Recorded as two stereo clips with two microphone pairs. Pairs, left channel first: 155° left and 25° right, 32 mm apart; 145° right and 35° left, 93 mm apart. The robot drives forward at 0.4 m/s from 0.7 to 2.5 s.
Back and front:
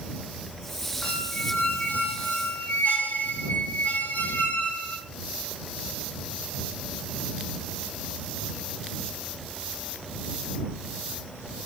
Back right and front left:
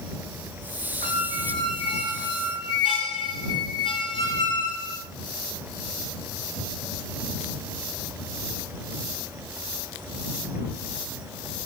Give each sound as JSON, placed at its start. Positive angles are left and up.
{"t": 1.0, "sound": "a squeak", "azimuth_deg": -165, "distance_m": 6.5}